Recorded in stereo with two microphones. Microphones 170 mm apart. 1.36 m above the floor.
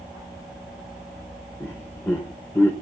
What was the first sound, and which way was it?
Laughter, 15° left (ahead or behind).